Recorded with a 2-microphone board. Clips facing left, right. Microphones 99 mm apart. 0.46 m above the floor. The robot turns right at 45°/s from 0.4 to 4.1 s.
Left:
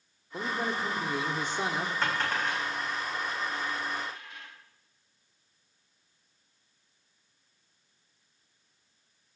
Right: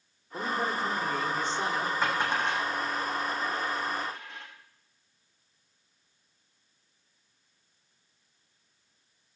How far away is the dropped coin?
About 4.5 m.